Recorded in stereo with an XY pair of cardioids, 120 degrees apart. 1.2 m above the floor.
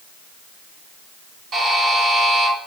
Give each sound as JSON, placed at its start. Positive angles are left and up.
{"t": 1.5, "sound": "a buzzer", "azimuth_deg": -40, "distance_m": 3.5}